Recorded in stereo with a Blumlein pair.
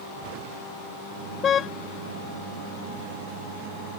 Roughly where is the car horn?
Ahead left.